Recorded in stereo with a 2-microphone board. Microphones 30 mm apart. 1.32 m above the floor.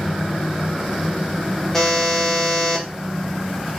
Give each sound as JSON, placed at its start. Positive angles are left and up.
{"t": 1.7, "sound": "a buzzer", "side_deg": 15, "distance_m": 0.7}